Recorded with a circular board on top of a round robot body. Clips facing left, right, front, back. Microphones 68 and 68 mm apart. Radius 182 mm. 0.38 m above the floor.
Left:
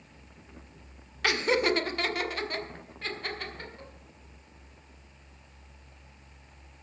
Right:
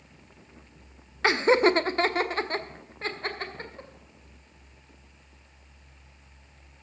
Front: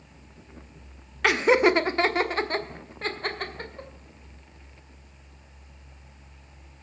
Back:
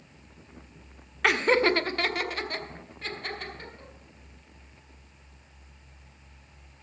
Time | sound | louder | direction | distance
1.2 | laughter | right 5 dB, front 3 dB | 90° right | 1.2 m